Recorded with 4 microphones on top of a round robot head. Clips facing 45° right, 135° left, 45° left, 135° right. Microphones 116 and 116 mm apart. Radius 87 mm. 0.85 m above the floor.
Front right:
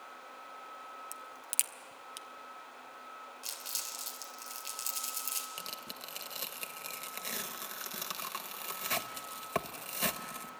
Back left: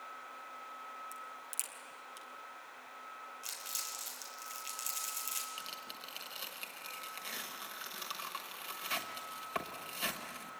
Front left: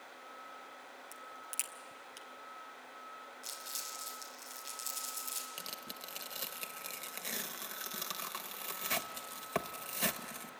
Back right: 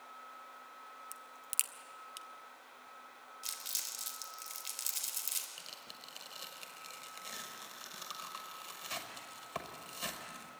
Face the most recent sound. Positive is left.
turn(degrees=5)